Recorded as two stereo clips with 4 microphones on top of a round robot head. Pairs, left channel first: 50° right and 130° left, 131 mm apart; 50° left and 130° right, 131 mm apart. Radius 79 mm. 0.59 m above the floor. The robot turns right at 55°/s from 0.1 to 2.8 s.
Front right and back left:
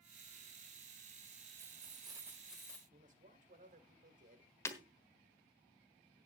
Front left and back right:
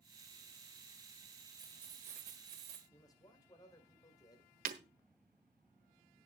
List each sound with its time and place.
1.6 s keys jangling: 165° left, 2 m; by 2.8 s 125° right, 2 m
2.9 s a man speaking: 110° left, 2 m
4.7 s breaking glass: 120° right, 1.3 m